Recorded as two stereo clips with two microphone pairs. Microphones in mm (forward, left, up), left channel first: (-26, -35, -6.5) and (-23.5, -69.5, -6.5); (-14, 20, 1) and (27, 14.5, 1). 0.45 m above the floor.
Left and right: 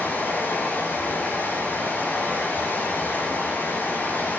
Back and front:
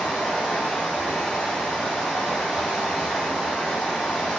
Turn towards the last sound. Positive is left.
turn(degrees=95)